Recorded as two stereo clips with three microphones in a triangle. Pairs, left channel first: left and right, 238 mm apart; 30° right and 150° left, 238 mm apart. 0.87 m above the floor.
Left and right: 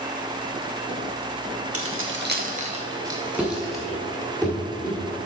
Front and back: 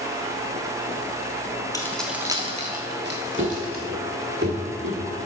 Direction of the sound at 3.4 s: 175° right.